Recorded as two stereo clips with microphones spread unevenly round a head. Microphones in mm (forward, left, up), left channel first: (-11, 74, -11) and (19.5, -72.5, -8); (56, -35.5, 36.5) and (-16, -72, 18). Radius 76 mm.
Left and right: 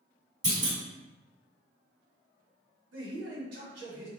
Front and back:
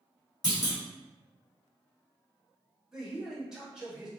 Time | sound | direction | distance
0.4 | a clunk | 15° right | 1.8 m
2.9 | a man speaking | 70° right | 1.3 m